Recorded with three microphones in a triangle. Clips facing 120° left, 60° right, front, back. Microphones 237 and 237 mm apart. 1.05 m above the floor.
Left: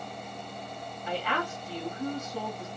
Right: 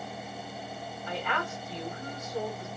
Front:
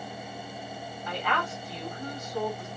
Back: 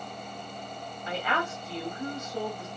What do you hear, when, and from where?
1.1 s a woman speaking: 115° left, 2.0 m